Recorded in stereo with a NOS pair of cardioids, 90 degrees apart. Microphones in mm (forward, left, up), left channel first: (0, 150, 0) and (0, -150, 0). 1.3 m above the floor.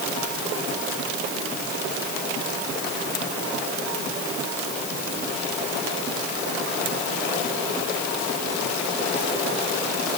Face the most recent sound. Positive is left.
No sound to turn to.